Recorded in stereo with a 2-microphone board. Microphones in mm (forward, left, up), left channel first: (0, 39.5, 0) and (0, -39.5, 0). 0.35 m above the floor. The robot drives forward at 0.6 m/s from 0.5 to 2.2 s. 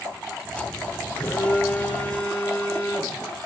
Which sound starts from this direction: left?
A phone buzzing, at 1.1 s.